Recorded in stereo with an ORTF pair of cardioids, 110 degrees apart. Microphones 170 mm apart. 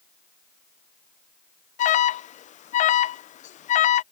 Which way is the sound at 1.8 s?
50° left.